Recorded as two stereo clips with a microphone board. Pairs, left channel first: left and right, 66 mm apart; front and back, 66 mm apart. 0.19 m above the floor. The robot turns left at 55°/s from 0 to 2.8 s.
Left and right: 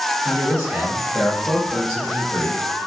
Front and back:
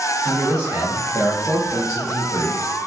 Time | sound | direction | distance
0.2 | a man speaking | 105° right | 1.7 m